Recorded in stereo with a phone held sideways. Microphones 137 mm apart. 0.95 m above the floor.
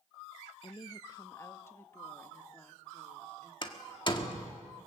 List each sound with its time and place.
0.6 s a woman speaking: 40° left (ahead or behind), 0.5 m; by 3.5 s 10° left (ahead or behind), 2.5 m
3.6 s a door slam: 40° left (ahead or behind), 1.5 m